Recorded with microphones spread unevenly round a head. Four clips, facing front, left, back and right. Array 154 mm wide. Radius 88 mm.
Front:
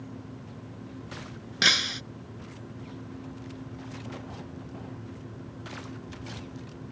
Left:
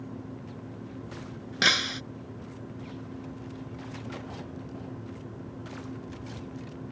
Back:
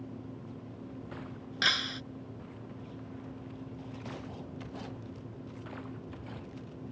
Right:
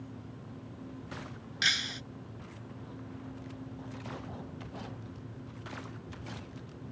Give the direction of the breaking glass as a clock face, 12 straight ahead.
10 o'clock.